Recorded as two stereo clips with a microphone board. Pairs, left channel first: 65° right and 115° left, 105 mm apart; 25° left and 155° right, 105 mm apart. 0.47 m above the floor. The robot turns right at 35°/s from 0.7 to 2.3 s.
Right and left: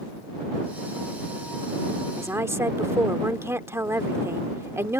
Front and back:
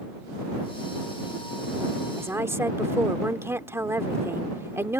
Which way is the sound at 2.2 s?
155° left.